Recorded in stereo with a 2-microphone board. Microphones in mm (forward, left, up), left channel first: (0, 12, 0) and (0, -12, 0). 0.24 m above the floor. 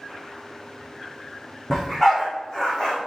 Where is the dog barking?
20° left (ahead or behind), 3.5 m; by 3.0 s 30° left (ahead or behind), 2.5 m.